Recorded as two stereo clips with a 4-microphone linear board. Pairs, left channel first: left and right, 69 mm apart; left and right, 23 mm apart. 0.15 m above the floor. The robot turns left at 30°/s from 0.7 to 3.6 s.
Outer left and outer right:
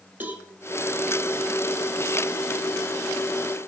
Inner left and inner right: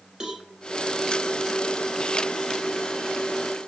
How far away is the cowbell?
About 1.8 m.